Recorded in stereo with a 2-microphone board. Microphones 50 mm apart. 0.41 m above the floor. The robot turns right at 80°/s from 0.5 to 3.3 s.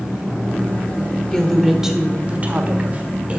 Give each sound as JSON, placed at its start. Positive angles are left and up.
{"t": 1.3, "sound": "a woman speaking", "azimuth_deg": 155, "distance_m": 1.5}